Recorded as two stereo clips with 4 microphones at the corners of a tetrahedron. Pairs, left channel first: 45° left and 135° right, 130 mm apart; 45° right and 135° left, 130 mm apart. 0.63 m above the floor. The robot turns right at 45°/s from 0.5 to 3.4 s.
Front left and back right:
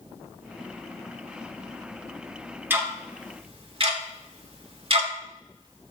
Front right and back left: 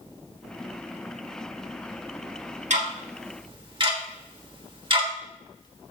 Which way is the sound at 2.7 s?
150° left.